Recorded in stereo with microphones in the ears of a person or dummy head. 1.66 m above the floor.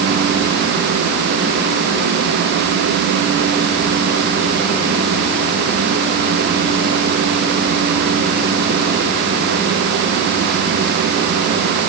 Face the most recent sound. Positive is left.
No sound to turn to.